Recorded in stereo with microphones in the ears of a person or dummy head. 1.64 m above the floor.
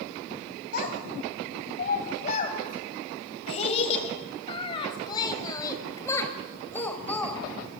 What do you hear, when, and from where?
0.7 s a child speaking: 55° left (ahead or behind), 6 m; by 7.8 s 10° left (ahead or behind), 5 m